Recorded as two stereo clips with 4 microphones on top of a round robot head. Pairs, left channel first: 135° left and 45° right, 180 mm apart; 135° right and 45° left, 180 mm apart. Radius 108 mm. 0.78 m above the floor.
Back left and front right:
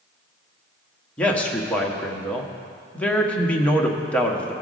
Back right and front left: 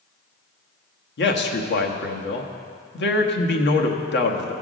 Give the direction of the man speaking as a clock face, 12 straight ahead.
5 o'clock.